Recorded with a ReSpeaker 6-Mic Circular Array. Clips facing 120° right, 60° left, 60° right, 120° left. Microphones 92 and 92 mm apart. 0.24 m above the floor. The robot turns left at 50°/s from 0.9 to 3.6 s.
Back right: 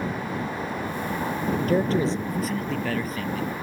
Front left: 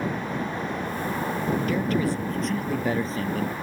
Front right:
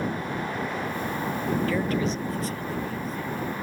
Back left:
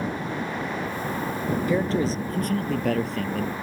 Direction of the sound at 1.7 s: 165° right.